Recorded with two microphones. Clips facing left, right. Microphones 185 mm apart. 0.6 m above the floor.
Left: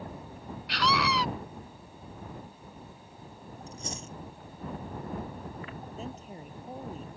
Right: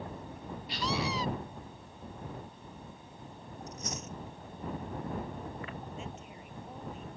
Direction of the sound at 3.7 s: 30° left (ahead or behind).